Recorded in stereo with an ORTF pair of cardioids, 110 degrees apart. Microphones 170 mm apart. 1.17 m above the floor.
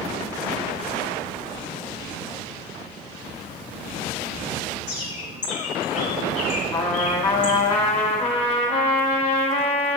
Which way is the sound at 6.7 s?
35° left.